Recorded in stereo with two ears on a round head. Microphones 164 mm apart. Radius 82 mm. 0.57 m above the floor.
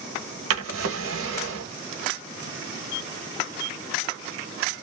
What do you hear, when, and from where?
0.5 s a drawer: 80° right, 0.9 m